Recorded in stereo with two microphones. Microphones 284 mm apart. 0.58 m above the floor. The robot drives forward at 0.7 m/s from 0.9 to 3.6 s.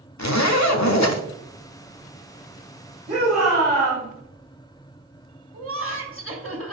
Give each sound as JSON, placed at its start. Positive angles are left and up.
{"t": 0.2, "sound": "a zipper", "side_deg": 70, "distance_m": 0.8}
{"t": 3.1, "sound": "a shout", "side_deg": -75, "distance_m": 3.5}
{"t": 5.5, "sound": "laughter", "side_deg": -50, "distance_m": 1.8}